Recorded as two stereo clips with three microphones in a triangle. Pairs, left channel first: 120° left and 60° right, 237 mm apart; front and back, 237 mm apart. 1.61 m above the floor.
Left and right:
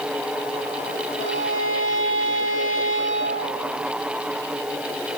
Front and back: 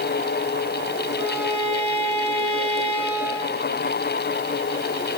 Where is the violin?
40° right, 9.5 m.